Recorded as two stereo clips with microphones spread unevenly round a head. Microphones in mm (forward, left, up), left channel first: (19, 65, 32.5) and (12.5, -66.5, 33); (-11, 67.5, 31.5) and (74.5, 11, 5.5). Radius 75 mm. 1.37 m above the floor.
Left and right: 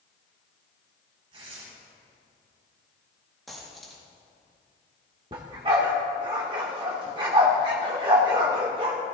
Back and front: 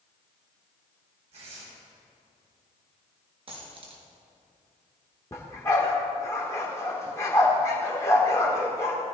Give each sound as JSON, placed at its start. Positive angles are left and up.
{"t": 1.3, "sound": "tearing paper", "azimuth_deg": -45, "distance_m": 5.0}
{"t": 3.5, "sound": "a dropped coin", "azimuth_deg": -5, "distance_m": 3.0}
{"t": 5.3, "sound": "a dog barking", "azimuth_deg": -150, "distance_m": 1.7}